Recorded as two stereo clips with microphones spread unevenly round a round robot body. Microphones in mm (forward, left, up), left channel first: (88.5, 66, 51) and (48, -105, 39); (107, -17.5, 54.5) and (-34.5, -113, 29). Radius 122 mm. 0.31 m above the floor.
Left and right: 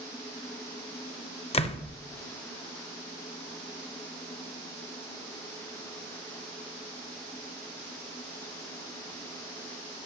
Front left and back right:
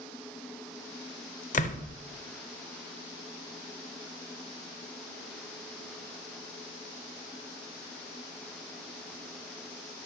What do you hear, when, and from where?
1.5 s a door slam: 45° left, 0.8 m